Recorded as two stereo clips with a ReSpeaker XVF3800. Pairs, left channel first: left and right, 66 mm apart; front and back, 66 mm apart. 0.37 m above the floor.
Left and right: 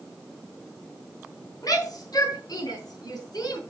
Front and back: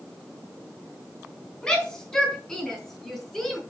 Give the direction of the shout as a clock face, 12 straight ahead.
9 o'clock.